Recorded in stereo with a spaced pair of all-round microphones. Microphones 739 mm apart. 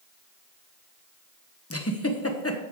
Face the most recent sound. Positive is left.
turn(degrees=20)  # may be behind; listen again after turning